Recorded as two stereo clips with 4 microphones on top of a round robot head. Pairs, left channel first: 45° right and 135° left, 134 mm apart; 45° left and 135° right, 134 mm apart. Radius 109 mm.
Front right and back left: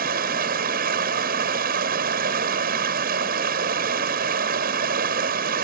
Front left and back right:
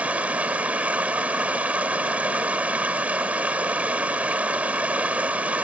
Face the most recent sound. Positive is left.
turn(degrees=145)